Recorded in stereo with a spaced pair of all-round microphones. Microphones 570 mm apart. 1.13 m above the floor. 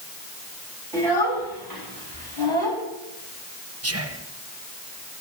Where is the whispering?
25° right (ahead or behind), 0.8 m.